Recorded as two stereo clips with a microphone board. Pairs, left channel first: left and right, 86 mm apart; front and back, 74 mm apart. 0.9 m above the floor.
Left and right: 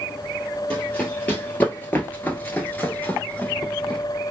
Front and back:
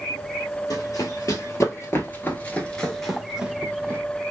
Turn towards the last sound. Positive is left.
turn(degrees=155)